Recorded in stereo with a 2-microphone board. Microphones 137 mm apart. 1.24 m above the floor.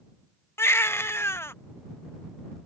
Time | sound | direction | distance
0.6 | a baby crying | 20° left (ahead or behind) | ?